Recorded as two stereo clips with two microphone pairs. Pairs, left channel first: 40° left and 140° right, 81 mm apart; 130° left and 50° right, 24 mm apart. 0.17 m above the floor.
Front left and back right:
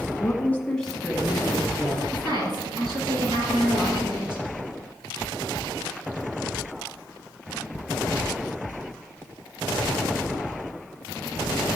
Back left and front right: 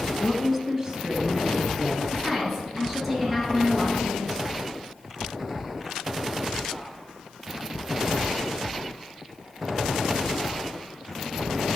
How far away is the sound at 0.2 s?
About 1.2 m.